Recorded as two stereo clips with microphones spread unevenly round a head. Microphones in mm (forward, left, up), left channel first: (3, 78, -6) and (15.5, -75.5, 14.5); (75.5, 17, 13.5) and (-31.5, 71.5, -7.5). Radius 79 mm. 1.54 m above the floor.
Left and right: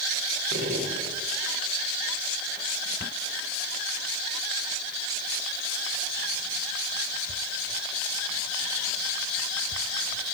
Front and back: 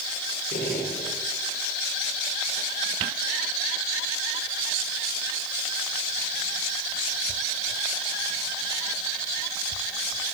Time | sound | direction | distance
0.5 | a gunshot | 60° right | 6 m